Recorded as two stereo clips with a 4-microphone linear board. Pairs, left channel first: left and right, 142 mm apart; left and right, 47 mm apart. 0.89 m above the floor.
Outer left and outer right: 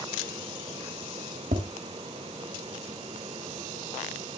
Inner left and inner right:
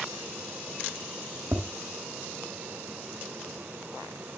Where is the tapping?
85° right, 2 m.